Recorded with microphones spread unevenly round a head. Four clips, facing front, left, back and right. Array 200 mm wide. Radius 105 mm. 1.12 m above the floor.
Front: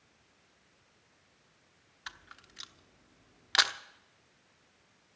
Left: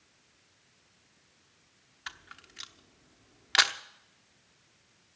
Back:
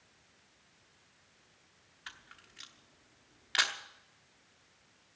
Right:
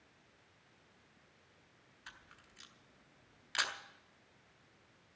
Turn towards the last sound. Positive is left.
turn(degrees=65)